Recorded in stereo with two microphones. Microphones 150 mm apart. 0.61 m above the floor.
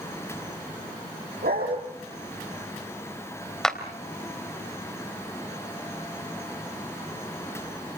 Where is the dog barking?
85° right, 7.5 m.